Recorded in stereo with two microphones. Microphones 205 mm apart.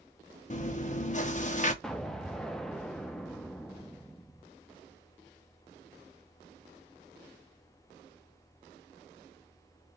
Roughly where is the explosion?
Centre.